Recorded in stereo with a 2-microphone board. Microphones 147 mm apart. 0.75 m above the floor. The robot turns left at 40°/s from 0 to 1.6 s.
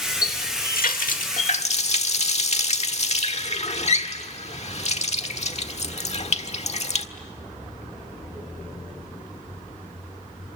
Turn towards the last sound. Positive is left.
turn(degrees=50)  # may be behind; listen again after turning